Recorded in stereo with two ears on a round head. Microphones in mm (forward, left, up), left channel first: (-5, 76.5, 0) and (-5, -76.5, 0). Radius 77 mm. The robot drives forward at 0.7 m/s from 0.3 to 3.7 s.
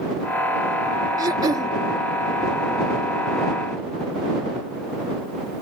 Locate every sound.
1.2 s throat clearing: 25° right (ahead or behind)